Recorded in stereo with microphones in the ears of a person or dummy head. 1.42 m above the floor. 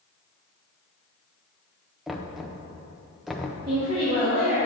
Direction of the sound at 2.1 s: 5° right (ahead or behind).